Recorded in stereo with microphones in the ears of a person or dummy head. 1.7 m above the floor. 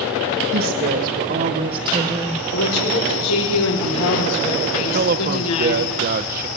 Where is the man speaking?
45° right (ahead or behind), 1.2 m.